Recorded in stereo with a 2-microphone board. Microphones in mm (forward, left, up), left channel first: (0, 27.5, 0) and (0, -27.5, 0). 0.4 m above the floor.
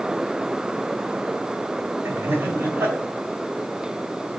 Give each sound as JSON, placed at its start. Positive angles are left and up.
{"t": 2.0, "sound": "laughter", "side_deg": -55, "distance_m": 2.5}